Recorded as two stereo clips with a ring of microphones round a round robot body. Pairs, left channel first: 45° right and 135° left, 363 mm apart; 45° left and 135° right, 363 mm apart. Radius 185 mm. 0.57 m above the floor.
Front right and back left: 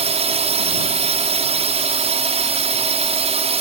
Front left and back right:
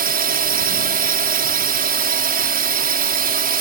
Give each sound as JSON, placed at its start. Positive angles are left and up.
{"t": 0.0, "sound": "a drone", "azimuth_deg": -170}